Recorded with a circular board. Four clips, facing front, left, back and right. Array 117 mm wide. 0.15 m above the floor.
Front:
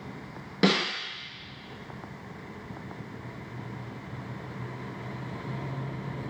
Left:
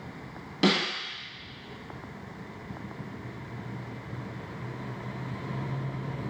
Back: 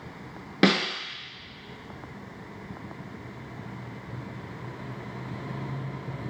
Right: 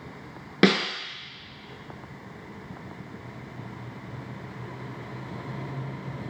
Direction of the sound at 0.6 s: 115° right.